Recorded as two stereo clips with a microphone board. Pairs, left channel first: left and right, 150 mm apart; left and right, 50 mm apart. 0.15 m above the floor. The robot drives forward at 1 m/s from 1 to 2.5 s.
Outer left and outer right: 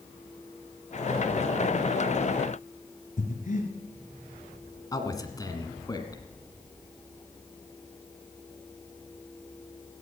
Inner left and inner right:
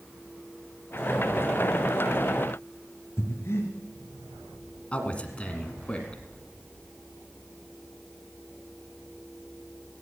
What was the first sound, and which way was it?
Breathing, 55° left (ahead or behind).